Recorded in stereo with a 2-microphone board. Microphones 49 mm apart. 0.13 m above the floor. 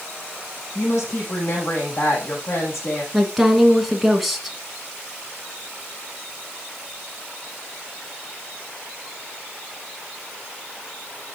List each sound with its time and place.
0.8 s a woman speaking: 60° left (ahead or behind), 6 m
3.1 s a woman speaking: centre (ahead or behind), 1.7 m